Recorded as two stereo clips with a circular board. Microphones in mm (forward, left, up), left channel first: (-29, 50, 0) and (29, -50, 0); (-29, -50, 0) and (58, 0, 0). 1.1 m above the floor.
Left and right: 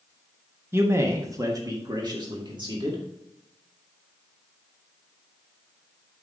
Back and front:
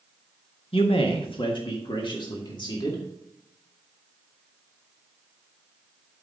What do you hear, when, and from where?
0.7 s a man speaking: 130° right, 1.2 m; by 3.0 s 105° right, 2 m